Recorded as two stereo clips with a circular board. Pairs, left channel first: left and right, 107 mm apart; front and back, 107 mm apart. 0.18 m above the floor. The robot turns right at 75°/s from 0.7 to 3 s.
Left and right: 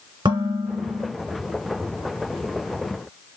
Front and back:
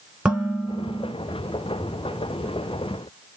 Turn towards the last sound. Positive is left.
turn(degrees=70)